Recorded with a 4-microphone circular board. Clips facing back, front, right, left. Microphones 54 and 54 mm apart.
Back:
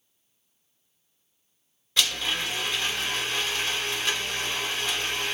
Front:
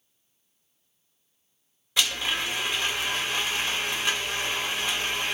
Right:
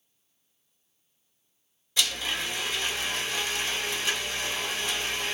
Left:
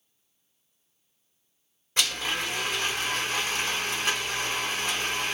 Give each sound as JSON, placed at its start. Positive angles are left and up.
{"t": 2.0, "sound": "a blender", "azimuth_deg": 75, "distance_m": 1.0}